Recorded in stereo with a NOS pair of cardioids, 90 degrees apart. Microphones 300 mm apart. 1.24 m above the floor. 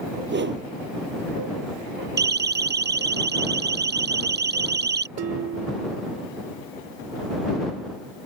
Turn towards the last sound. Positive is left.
turn(degrees=-55)